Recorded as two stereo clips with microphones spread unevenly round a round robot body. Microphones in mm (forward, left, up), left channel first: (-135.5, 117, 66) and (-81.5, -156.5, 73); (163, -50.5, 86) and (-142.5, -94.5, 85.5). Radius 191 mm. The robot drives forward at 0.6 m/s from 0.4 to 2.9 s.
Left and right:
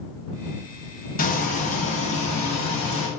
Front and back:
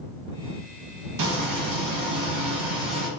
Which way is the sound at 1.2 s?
165° left.